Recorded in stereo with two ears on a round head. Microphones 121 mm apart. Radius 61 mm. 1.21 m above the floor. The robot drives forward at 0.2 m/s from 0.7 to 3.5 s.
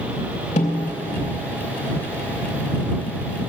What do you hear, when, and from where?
0.6 s a snare drum: 50° left (ahead or behind), 3 m